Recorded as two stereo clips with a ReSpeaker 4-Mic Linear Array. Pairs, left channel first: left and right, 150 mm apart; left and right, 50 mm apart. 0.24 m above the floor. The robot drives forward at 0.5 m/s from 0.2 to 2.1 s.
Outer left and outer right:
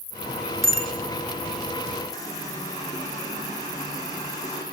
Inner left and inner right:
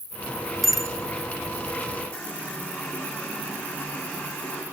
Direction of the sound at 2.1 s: 25° left (ahead or behind).